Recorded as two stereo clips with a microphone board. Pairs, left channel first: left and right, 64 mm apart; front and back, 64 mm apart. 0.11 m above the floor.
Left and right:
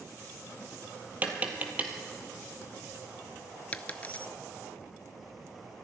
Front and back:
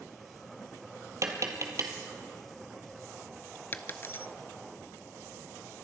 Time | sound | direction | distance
1.2 | tapping | 150° right | 1.6 m
3.7 | a dropped coin | 35° left | 0.6 m